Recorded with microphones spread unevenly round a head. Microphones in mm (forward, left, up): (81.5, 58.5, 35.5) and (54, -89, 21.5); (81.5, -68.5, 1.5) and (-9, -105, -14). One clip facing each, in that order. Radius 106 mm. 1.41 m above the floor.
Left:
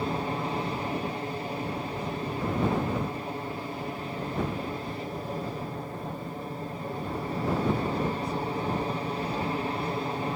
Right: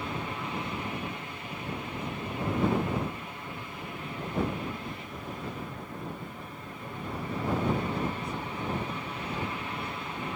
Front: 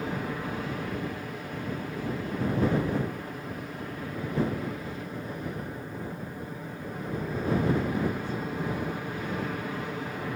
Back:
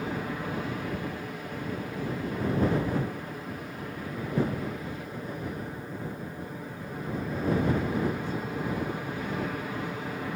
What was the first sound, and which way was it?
An aircraft, 115° left.